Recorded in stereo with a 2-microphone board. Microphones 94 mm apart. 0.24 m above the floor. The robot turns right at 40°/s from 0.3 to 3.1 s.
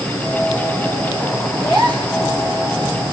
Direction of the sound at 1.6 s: 75° left (ahead or behind).